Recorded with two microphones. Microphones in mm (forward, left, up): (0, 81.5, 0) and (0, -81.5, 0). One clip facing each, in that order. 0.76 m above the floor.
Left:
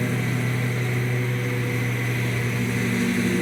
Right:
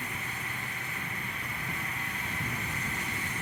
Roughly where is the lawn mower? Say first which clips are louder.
Left 15 dB; left.